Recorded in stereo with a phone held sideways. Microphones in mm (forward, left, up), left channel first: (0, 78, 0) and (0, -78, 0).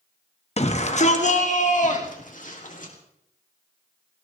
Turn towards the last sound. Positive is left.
turn(degrees=60)  # may be behind; listen again after turning